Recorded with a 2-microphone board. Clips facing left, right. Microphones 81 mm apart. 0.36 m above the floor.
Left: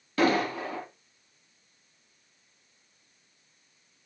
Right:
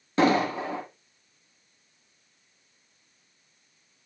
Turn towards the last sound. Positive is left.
turn(degrees=-25)  # may be behind; listen again after turning